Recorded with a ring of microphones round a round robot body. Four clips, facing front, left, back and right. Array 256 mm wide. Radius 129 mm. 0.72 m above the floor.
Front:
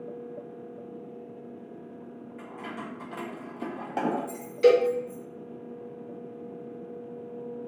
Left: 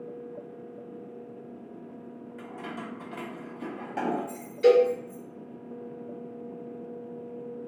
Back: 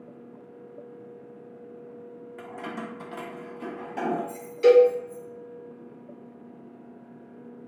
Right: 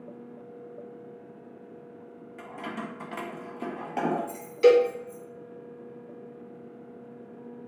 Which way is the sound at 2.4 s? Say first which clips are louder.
Right 3 dB, back 3 dB; 170° right.